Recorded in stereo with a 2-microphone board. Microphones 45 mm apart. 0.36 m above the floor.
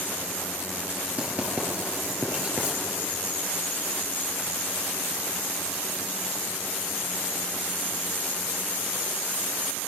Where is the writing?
30° right (ahead or behind), 5.5 m.